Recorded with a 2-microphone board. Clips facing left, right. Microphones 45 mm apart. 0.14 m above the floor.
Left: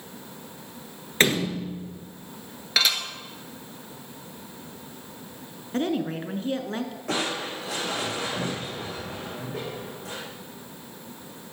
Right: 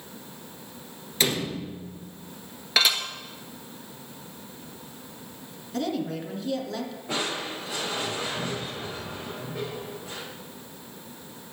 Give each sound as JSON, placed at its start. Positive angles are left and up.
{"t": 1.2, "sound": "a door slam", "side_deg": 45, "distance_m": 1.7}
{"t": 2.8, "sound": "dishes clattering", "side_deg": -5, "distance_m": 1.5}
{"t": 5.7, "sound": "a woman speaking", "side_deg": 35, "distance_m": 1.3}
{"t": 7.1, "sound": "crushing", "side_deg": 80, "distance_m": 5.5}